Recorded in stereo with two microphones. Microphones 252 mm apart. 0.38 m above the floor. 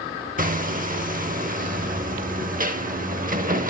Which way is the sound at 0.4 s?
35° right (ahead or behind).